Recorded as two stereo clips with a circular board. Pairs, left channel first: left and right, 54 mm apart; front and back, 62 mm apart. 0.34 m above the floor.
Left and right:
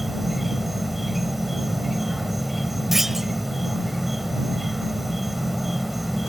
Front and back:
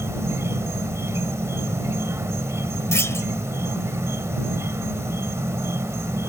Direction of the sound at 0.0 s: 175° right.